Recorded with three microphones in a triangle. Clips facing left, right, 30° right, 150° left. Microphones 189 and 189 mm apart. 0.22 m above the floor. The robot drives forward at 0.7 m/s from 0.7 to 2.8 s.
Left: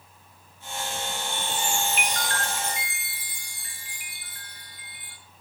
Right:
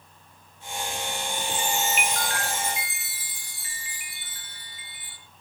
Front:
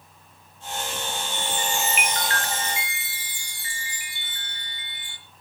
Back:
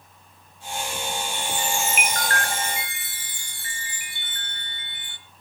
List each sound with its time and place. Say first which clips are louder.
1.3 s a chime: right 1 dB, front 2 dB; 175° right, 1.1 m; by 5.2 s straight behind, 2 m